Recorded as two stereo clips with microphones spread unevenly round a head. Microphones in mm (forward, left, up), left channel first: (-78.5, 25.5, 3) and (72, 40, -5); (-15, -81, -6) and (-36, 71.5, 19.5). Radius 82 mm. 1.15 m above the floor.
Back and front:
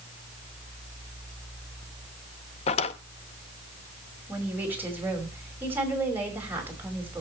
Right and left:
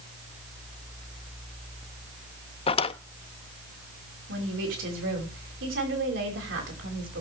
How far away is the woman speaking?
About 5.5 m.